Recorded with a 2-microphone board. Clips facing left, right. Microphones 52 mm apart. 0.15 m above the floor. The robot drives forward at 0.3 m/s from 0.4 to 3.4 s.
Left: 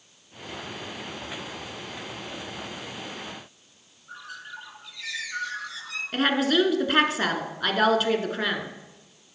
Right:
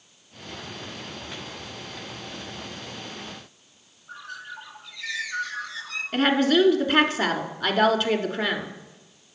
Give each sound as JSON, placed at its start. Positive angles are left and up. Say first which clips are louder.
{"t": 4.1, "sound": "a bird", "louder": "right 2 dB", "side_deg": 0, "distance_m": 1.4}
{"t": 6.1, "sound": "a woman speaking", "louder": "right 2 dB", "side_deg": 5, "distance_m": 1.4}